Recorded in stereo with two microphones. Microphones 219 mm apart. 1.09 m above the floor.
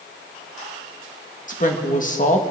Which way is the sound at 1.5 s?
35° left (ahead or behind).